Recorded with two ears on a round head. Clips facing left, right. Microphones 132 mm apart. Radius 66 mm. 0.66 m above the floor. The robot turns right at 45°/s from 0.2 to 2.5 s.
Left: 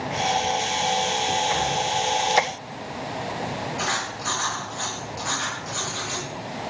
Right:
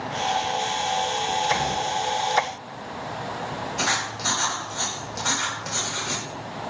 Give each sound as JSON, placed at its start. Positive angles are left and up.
{"t": 1.5, "sound": "a gunshot", "azimuth_deg": -55, "distance_m": 2.5}
{"t": 3.8, "sound": "writing", "side_deg": -75, "distance_m": 1.9}